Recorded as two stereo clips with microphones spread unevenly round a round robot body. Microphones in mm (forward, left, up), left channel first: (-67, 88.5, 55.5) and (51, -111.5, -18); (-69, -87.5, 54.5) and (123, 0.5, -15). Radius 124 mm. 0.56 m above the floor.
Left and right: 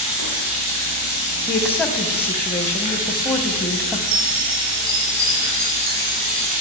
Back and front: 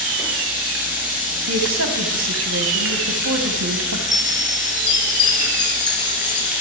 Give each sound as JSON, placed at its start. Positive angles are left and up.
{"t": 0.0, "sound": "running water", "azimuth_deg": -60, "distance_m": 7.5}
{"t": 1.5, "sound": "a woman speaking", "azimuth_deg": 35, "distance_m": 4.0}
{"t": 4.1, "sound": "a chime", "azimuth_deg": -65, "distance_m": 4.0}